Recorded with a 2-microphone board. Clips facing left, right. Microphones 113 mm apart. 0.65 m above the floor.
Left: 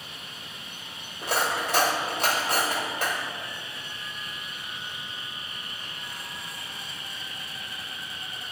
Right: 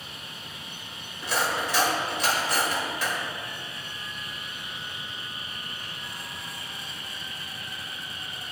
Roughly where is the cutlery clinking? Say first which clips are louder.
Left 1 dB; left.